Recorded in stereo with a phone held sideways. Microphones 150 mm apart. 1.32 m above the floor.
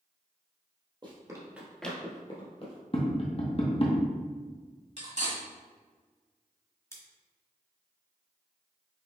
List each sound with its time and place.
1.0 s running footsteps: 35° right (ahead or behind), 1.6 m; by 2.8 s 45° left (ahead or behind), 1.9 m
2.9 s tapping: 40° left (ahead or behind), 0.7 m
5.0 s cutlery clinking: 50° right (ahead or behind), 1.5 m
6.9 s scissors: 20° left (ahead or behind), 1.2 m